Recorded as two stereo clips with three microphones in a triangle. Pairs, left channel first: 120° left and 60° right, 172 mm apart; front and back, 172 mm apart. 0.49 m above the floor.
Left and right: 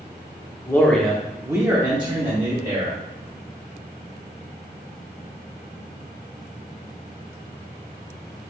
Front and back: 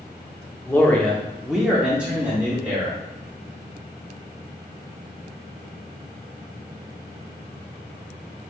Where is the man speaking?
65° left, 0.8 m; by 3.0 s 105° right, 1.3 m.